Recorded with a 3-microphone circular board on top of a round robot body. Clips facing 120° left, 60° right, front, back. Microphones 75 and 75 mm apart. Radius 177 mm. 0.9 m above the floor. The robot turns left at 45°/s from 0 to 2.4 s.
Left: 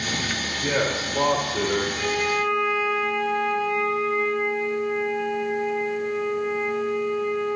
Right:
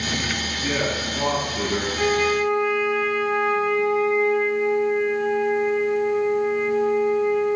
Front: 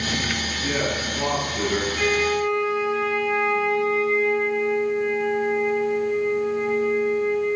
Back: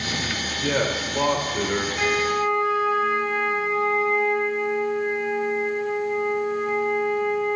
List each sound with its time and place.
0.6 s a man speaking: straight behind, 3 m; by 1.9 s 120° left, 3 m
1.9 s a flute: 110° right, 1.7 m; by 7.6 s 130° right, 1.7 m